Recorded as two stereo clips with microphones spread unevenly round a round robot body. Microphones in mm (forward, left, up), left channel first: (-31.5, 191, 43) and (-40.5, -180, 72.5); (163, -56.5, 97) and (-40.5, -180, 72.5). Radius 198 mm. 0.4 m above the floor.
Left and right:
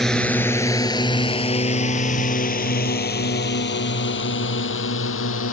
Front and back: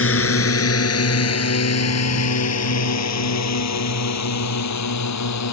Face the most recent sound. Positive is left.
turn(degrees=30)